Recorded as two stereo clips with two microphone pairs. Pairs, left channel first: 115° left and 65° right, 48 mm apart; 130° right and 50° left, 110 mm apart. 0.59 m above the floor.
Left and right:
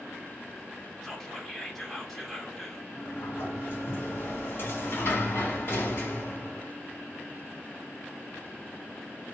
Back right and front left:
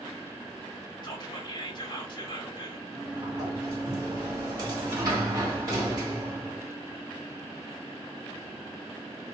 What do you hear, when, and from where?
1.0 s whispering: 160° right, 1.6 m
2.9 s a sliding door: 100° left, 2.5 m